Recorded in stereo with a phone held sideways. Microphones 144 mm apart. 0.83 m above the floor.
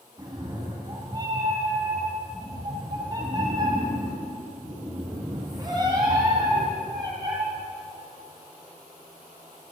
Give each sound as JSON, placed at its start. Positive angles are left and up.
{"t": 0.2, "sound": "a cat meowing", "side_deg": -30, "distance_m": 2.0}